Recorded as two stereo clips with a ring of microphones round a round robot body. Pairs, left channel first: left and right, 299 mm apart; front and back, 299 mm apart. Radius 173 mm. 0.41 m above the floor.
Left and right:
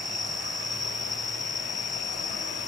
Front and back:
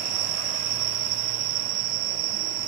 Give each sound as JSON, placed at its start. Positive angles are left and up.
{"t": 0.0, "sound": "an insect", "azimuth_deg": 170}